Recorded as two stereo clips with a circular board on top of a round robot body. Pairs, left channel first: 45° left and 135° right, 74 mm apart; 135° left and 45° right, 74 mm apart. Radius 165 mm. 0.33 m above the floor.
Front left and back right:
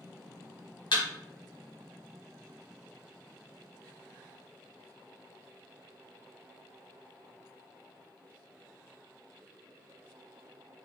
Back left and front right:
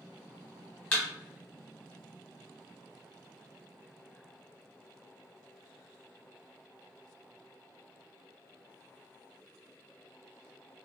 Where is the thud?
65° left, 1.3 m.